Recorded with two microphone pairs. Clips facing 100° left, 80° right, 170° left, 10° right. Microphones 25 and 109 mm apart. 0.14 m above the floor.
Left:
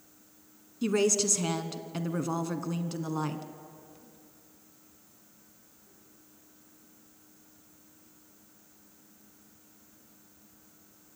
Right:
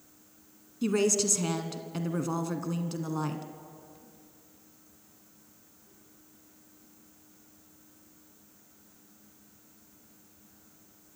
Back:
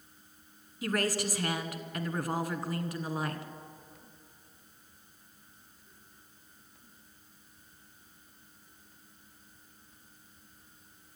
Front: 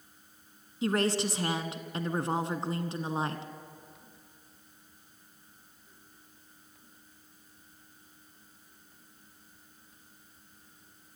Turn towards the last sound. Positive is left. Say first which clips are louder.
# even, front 3 dB
turn(degrees=20)